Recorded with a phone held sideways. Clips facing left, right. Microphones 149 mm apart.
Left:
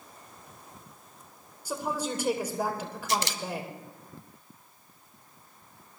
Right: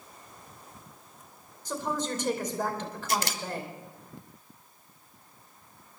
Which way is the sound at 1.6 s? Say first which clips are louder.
Even; 10° left (ahead or behind).